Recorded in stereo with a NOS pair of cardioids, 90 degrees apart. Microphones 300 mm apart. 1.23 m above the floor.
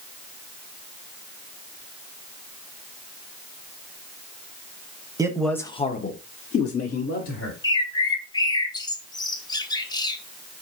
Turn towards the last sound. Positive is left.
turn(degrees=15)